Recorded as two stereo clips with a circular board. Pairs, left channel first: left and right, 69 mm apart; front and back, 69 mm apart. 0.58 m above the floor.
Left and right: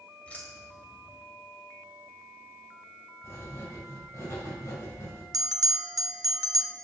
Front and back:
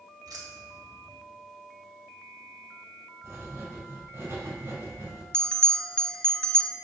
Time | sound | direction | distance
0.3 | keys jangling | 160° left | 1.5 m
3.2 | writing | 135° left | 3 m
5.3 | a bell | 75° right | 0.6 m